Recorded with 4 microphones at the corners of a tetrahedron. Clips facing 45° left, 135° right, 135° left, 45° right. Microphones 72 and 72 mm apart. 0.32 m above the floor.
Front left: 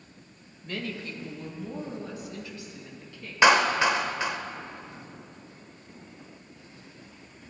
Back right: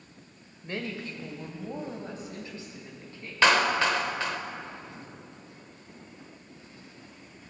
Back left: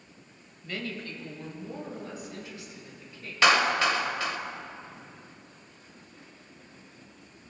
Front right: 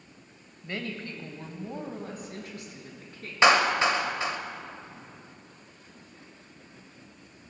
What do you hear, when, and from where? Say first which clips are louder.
0.6 s a woman speaking: even, front right 1 dB; 90° right, 1.1 m; by 3.3 s 75° right, 2.5 m
3.4 s a clap: front left 2 dB, front right 2 dB; 10° right, 0.7 m